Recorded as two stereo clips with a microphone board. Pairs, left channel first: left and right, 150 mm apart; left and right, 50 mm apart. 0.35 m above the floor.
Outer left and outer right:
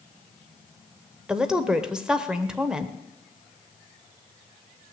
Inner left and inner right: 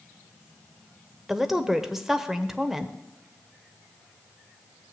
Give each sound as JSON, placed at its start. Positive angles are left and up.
{"t": 1.3, "sound": "a woman speaking", "side_deg": -5, "distance_m": 0.9}